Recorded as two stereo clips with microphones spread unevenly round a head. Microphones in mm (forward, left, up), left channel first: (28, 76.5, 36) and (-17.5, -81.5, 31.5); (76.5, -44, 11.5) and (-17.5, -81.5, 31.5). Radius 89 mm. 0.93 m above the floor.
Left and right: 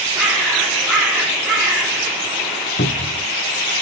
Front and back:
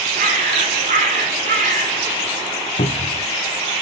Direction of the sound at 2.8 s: 50° left.